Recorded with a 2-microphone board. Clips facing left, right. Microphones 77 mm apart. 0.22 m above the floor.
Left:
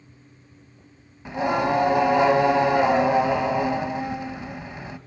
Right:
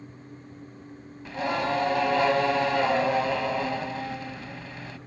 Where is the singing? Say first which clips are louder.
Left 5 dB; 20° left (ahead or behind), 0.6 m.